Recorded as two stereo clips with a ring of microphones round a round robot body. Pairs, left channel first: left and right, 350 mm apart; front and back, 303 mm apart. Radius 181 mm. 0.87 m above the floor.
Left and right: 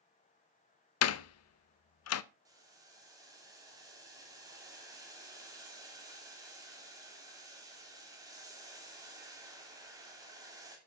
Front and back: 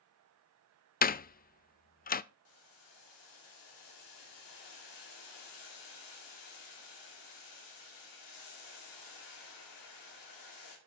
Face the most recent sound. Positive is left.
turn(degrees=-10)